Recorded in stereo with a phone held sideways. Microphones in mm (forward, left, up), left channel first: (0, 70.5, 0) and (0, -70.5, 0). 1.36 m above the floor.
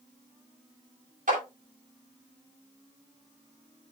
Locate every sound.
1.3 s a clap: 75° right (ahead or behind), 7.5 m